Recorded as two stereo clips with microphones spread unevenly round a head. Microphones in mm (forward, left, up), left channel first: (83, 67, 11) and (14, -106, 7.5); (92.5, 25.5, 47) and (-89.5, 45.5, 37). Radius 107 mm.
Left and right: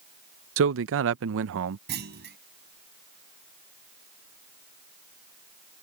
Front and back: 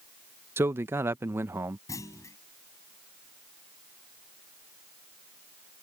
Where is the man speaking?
110° right.